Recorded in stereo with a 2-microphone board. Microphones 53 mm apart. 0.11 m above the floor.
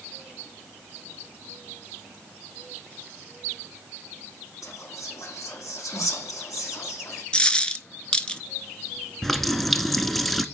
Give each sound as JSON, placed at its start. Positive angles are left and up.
{"t": 4.6, "sound": "whispering", "side_deg": 75, "distance_m": 6.0}
{"t": 7.3, "sound": "a dropped coin", "side_deg": 20, "distance_m": 0.7}
{"t": 9.2, "sound": "a running tap", "side_deg": 5, "distance_m": 0.8}